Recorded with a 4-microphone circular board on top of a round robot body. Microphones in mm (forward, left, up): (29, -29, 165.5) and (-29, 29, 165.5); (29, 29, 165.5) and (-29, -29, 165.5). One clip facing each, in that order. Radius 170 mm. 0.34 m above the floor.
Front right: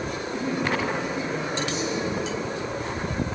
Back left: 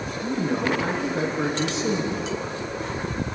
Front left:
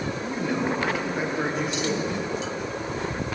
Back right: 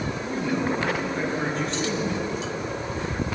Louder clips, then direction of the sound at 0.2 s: Back left 5 dB, back right 1 dB; 125° left.